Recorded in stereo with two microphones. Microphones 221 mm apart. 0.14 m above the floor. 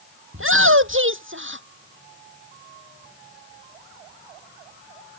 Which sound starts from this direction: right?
A shout, at 0.3 s.